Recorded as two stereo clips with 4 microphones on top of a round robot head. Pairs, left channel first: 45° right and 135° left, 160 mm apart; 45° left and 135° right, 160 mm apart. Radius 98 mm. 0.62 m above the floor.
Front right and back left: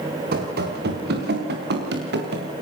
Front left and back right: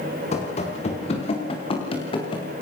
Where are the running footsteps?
100° left, 6 m; by 2.5 s 110° left, 5.5 m.